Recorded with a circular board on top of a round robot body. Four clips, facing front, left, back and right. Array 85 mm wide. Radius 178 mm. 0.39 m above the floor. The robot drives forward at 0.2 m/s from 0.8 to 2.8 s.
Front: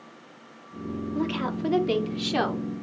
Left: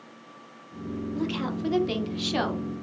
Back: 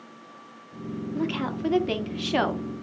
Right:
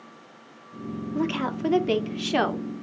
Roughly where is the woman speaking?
Right.